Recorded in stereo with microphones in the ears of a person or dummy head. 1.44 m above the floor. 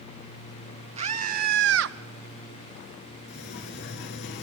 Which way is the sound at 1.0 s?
35° right (ahead or behind).